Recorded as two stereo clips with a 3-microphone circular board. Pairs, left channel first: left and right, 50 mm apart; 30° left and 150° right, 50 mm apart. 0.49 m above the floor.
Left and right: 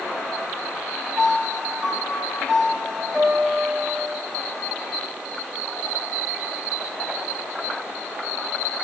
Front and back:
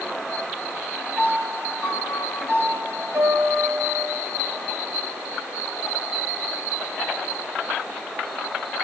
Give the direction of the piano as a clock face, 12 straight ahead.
6 o'clock.